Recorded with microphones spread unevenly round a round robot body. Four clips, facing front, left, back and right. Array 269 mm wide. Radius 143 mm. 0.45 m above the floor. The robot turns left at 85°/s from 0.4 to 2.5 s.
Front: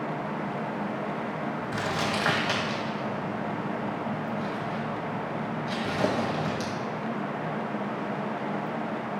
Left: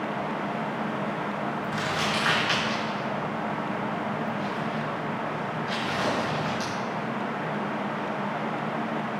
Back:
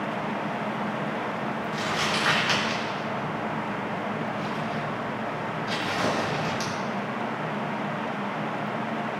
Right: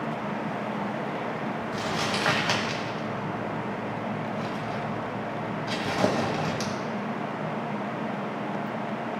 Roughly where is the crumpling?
Ahead.